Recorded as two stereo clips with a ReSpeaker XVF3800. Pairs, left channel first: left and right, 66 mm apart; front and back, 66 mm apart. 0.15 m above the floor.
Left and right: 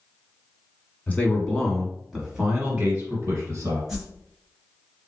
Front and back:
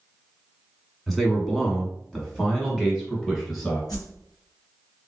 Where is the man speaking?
90° left, 1.4 m; by 3.8 s 70° right, 1.8 m.